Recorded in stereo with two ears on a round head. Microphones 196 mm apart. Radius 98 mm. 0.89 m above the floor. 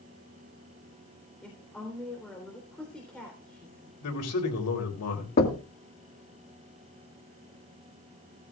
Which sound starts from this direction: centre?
A woman speaking, at 1.4 s.